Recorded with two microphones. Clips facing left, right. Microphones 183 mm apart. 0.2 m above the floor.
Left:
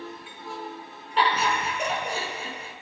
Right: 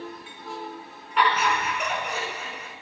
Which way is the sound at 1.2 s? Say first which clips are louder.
Right 1 dB; 30° left (ahead or behind).